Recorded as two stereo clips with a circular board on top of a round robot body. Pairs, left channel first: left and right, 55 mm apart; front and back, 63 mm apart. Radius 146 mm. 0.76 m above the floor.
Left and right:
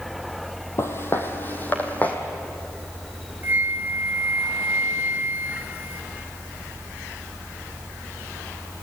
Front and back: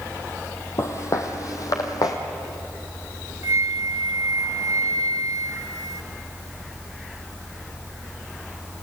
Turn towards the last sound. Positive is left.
turn(degrees=-150)